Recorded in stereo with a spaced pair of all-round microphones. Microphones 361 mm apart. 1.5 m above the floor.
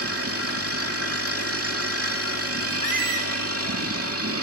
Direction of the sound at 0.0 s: 40° right (ahead or behind).